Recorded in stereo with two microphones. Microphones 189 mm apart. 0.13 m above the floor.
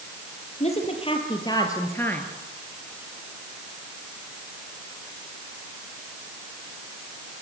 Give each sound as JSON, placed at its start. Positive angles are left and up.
{"t": 0.6, "sound": "a woman speaking", "side_deg": 35, "distance_m": 4.0}